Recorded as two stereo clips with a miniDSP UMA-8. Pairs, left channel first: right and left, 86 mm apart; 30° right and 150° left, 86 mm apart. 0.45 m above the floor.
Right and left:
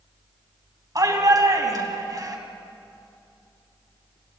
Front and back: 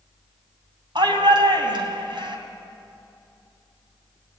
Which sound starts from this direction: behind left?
A shout, at 0.9 s.